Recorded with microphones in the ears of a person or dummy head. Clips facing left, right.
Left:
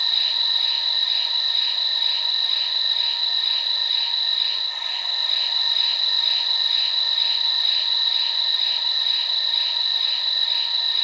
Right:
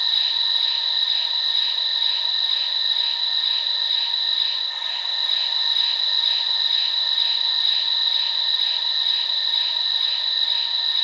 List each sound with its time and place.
0.0 s an insect: 10° left (ahead or behind), 0.7 m